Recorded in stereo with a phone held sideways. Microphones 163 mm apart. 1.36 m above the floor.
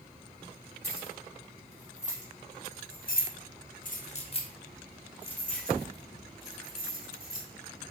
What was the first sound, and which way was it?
Keys jangling, 40° left (ahead or behind).